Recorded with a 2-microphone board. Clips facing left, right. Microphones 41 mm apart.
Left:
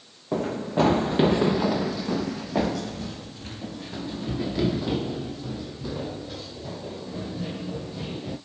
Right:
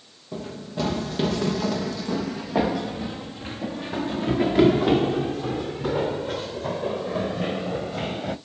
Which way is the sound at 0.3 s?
55° left (ahead or behind).